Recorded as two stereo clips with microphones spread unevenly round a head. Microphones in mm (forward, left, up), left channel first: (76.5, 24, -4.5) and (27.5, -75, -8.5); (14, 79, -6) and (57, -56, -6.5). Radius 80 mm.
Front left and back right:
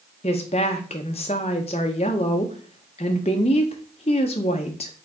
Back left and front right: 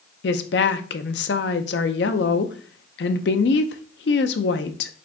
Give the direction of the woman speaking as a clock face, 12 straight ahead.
8 o'clock.